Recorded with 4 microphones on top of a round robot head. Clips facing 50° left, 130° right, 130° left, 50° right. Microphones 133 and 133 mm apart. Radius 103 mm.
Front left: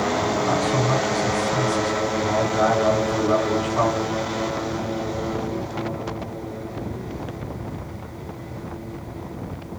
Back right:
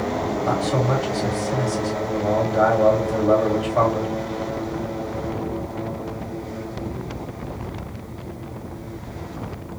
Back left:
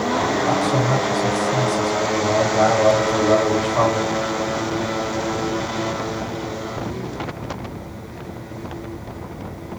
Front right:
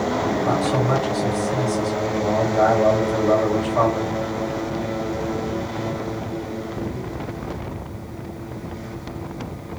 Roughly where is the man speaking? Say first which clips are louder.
Even, back left 1 dB; behind right.